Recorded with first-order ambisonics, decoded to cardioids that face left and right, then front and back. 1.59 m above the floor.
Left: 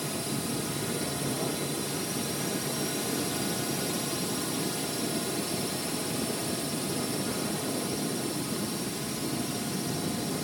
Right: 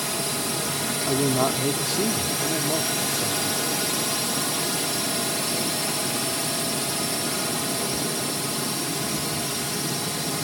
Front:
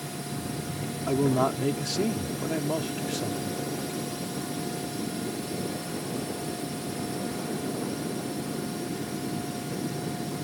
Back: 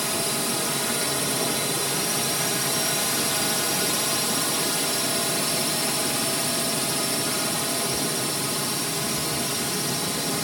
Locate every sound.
0.0 s a drone: 150° right
1.1 s a man speaking: 55° right